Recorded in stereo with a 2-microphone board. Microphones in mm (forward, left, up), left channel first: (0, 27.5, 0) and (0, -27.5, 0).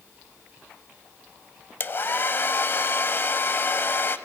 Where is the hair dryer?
45° left (ahead or behind), 0.6 m.